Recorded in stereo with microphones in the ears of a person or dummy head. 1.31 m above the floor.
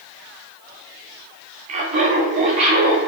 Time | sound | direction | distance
1.7 | laughter | 35° right (ahead or behind) | 0.6 m